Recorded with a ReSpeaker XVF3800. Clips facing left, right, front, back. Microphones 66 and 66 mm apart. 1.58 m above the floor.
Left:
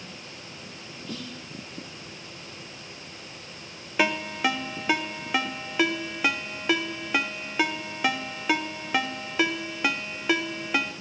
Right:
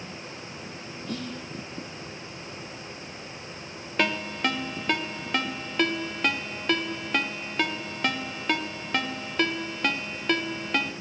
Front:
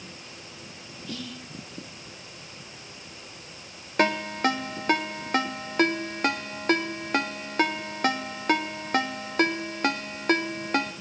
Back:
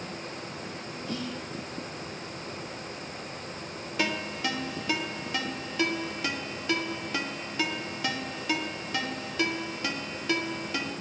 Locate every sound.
1.1 s whispering: 125° right, 2.5 m
4.0 s a ringtone: 10° left, 0.8 m